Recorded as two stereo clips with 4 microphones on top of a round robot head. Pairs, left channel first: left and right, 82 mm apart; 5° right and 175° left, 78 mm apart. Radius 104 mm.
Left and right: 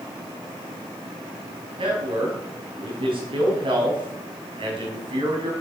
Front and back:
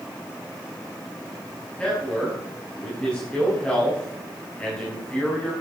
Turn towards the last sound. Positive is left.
turn(degrees=-85)